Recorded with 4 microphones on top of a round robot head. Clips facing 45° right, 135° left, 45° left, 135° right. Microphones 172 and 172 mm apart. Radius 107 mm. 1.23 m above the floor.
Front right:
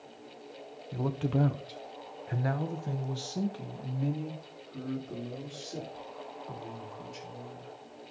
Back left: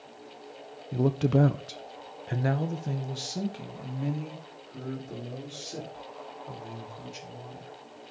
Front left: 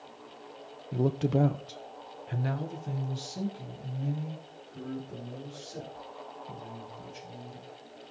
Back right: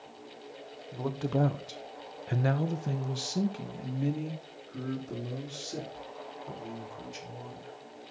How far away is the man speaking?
About 1.0 m.